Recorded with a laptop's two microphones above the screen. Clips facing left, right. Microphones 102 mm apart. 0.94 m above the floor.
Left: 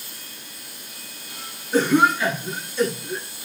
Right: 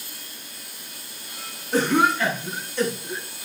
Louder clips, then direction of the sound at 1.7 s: Left 2 dB; 60° right (ahead or behind).